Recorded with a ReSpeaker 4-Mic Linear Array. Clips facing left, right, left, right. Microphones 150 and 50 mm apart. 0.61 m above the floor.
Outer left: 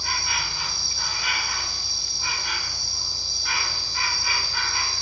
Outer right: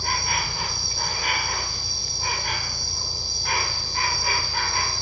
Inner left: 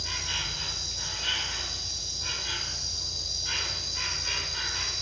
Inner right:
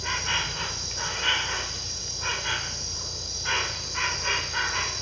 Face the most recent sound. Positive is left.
turn(degrees=-50)  # may be behind; listen again after turning